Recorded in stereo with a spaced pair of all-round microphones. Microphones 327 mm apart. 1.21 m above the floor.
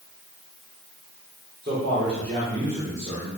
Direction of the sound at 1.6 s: 35° right (ahead or behind).